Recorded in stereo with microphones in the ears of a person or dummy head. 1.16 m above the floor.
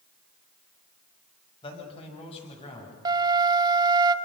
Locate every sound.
1.6 s a man speaking: 30° left (ahead or behind), 7 m; by 3.0 s 35° left (ahead or behind), 8.5 m
3.0 s a flute: 25° right (ahead or behind), 0.9 m